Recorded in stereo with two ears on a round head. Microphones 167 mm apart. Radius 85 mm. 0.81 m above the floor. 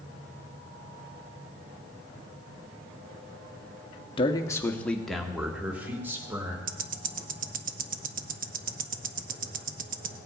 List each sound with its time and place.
4.2 s a man speaking: 25° left (ahead or behind), 0.8 m; by 6.6 s 15° right (ahead or behind), 2 m
6.7 s ticking: 45° right (ahead or behind), 0.7 m